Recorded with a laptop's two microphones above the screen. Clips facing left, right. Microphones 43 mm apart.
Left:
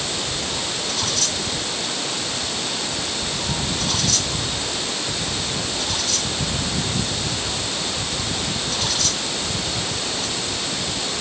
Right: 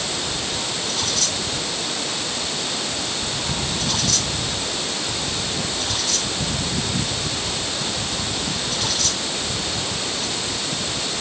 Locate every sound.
Only background noise.